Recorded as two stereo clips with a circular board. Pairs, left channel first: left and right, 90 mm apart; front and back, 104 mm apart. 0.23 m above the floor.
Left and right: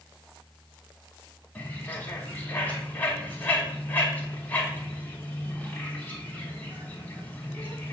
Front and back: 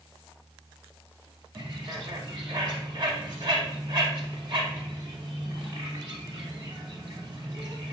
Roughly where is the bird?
Behind left.